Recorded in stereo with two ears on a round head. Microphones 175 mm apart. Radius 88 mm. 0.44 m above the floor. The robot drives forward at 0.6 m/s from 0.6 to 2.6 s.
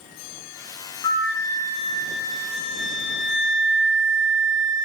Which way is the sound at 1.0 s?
15° left (ahead or behind).